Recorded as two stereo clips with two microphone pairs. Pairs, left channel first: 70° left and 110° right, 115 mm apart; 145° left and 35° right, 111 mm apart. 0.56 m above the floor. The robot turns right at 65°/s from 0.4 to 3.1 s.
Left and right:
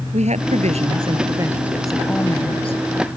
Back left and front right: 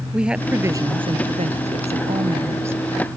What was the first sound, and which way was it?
A woman speaking, 115° right.